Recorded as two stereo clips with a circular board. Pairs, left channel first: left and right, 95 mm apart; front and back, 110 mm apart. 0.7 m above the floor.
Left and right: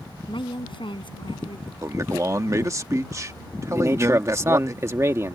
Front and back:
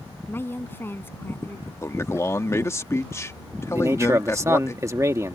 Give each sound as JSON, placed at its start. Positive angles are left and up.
{"t": 0.3, "sound": "a woman speaking", "azimuth_deg": 70}
{"t": 1.8, "sound": "a man speaking", "azimuth_deg": -55}
{"t": 3.7, "sound": "a man speaking", "azimuth_deg": -130}